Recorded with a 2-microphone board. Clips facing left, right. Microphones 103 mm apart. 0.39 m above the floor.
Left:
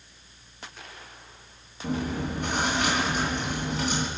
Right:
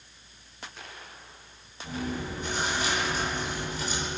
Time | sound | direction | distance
1.8 | chewing | 65° left (ahead or behind) | 3 m